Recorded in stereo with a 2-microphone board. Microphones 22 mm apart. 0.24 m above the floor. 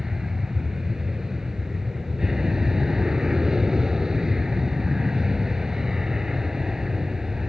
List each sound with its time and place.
0.0 s an aircraft: 30° right (ahead or behind)